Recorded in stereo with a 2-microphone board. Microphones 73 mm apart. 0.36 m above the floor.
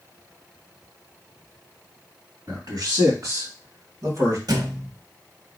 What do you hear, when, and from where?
2.5 s a man speaking: 65° right (ahead or behind), 2.5 m; by 4.4 s 55° right (ahead or behind), 2.5 m
4.5 s a thud: 65° right (ahead or behind), 0.8 m